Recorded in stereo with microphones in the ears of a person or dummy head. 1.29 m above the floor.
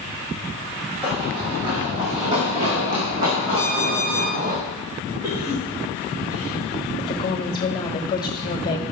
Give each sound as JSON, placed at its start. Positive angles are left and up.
{"t": 1.0, "sound": "running footsteps", "side_deg": -20, "distance_m": 2.0}
{"t": 3.6, "sound": "an alarm clock", "side_deg": -25, "distance_m": 0.9}
{"t": 5.2, "sound": "a cough", "side_deg": -25, "distance_m": 3.0}
{"t": 7.0, "sound": "a woman speaking", "side_deg": 25, "distance_m": 1.5}